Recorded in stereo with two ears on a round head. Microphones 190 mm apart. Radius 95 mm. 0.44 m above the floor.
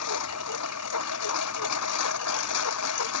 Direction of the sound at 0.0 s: 90° left.